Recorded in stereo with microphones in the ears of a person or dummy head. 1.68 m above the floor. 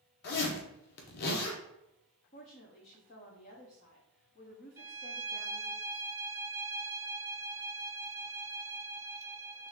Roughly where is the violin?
Centre.